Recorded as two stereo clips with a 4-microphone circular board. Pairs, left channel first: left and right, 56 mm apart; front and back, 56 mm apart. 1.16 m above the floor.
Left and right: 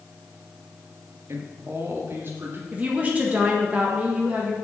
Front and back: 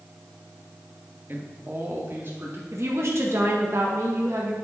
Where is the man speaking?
130° right, 1.2 m; by 2.6 s 135° right, 3 m.